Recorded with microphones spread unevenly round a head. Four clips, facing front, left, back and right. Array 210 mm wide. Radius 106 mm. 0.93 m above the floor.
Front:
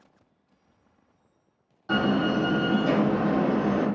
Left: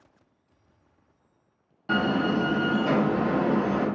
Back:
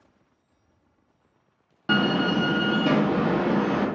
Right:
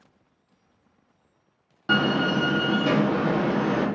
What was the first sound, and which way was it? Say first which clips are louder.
A door slam: right 2 dB, back 1 dB; 155° right.